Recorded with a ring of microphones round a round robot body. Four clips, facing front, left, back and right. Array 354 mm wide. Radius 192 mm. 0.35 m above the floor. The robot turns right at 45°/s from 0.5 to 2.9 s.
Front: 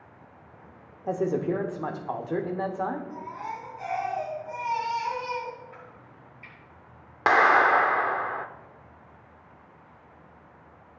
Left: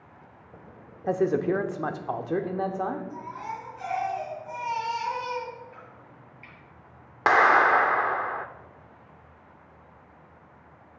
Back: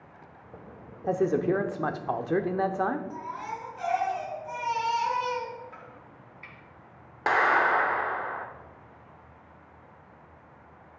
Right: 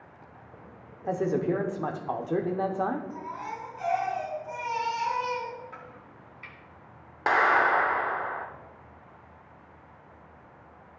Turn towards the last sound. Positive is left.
turn(degrees=45)